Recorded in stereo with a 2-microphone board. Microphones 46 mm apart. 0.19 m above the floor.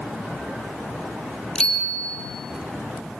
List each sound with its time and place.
1.6 s a bicycle bell: 20° left (ahead or behind), 4 m